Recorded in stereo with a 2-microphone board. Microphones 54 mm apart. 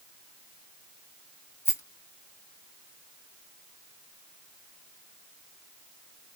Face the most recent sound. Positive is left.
turn(degrees=55)  # may be behind; listen again after turning